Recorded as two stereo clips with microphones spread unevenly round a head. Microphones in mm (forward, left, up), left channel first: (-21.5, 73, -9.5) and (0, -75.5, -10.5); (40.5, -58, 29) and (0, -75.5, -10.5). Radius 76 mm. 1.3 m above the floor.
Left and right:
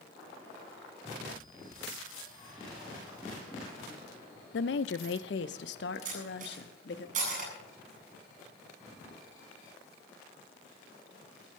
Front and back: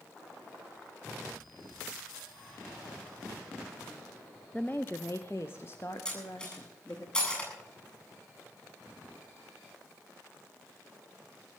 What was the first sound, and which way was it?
A woman speaking, 95° left.